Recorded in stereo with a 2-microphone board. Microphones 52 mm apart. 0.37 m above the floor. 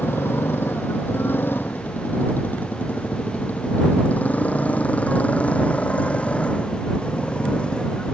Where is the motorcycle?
50° left (ahead or behind); by 8.2 s 20° left (ahead or behind).